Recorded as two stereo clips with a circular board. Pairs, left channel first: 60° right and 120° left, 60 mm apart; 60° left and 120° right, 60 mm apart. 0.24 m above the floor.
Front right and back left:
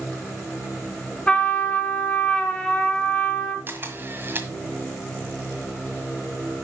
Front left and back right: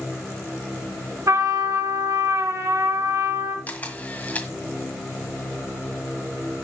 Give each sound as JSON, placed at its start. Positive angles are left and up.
{"t": 1.3, "sound": "a trumpet", "azimuth_deg": -130, "distance_m": 2.5}
{"t": 3.7, "sound": "a camera shutter", "azimuth_deg": 105, "distance_m": 1.6}